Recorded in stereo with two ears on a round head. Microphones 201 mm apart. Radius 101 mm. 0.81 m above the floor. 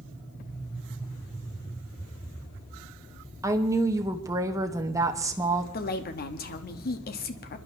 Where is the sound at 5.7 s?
45° left (ahead or behind), 1.2 m.